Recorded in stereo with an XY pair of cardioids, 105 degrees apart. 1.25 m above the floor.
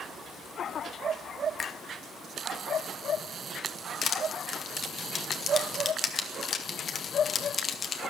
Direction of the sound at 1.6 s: 35° left.